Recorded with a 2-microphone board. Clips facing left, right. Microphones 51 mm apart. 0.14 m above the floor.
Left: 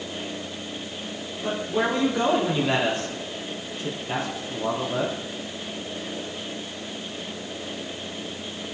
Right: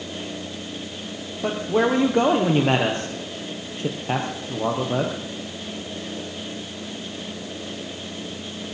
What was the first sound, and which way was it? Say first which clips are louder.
A man speaking: right 4 dB; 50° right (ahead or behind).